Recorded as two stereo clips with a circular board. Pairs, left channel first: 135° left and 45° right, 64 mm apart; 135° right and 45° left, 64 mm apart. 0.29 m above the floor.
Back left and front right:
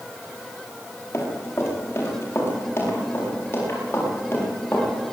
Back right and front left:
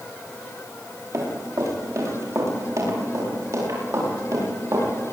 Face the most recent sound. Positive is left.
turn(degrees=75)